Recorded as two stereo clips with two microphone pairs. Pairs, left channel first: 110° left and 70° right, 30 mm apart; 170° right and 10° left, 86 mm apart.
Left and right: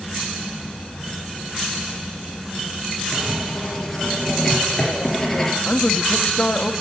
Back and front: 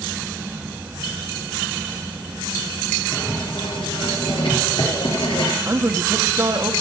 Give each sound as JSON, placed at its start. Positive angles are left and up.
{"t": 3.1, "sound": "writing", "azimuth_deg": -165, "distance_m": 4.0}
{"t": 5.7, "sound": "a man speaking", "azimuth_deg": 65, "distance_m": 1.1}